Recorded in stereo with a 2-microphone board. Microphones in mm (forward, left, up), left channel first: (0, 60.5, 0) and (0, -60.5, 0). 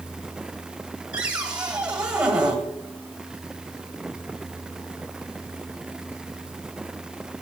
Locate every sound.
1.1 s a cupboard door: 10° right (ahead or behind), 1.4 m